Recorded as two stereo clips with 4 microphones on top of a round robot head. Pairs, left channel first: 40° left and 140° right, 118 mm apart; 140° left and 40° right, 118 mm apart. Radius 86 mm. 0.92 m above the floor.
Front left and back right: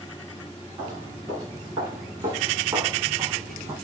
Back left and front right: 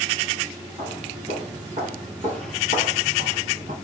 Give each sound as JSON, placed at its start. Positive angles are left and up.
{"t": 0.8, "sound": "footsteps", "azimuth_deg": -80, "distance_m": 5.5}